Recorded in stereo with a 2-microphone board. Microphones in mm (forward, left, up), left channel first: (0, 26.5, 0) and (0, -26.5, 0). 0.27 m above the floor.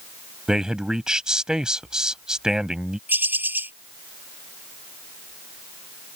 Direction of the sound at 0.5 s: 15° right (ahead or behind).